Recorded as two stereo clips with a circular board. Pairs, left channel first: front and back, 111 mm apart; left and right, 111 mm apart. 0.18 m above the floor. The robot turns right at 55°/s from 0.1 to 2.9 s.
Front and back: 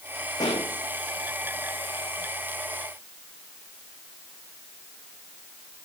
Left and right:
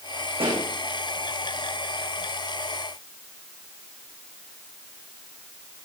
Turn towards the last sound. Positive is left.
turn(degrees=85)